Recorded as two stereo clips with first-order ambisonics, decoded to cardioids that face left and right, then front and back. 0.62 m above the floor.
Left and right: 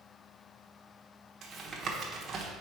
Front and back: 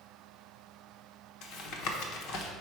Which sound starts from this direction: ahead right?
Tapping, at 1.4 s.